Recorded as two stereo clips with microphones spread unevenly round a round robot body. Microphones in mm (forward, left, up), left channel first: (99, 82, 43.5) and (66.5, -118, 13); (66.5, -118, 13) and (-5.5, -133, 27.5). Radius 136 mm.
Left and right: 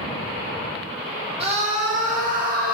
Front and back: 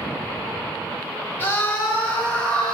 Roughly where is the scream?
Ahead right.